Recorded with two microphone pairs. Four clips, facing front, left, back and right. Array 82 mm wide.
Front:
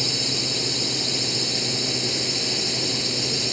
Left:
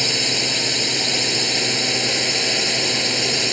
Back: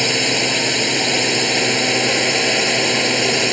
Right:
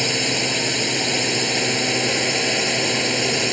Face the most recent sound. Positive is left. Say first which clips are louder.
# right 2 dB, back 10 dB
turn(degrees=-170)